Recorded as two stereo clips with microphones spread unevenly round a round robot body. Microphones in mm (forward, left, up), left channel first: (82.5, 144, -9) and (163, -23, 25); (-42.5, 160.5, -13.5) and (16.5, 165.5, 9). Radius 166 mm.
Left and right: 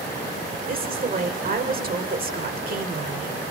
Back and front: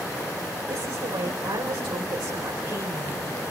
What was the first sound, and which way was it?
A woman speaking, 20° right.